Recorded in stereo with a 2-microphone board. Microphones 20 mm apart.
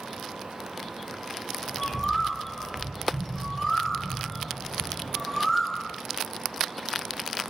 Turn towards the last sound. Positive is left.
turn(degrees=10)  # may be behind; listen again after turning